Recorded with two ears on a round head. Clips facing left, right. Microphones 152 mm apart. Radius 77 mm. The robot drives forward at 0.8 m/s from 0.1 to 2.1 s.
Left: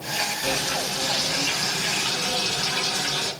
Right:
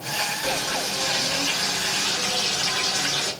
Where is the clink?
I don't hear a clink.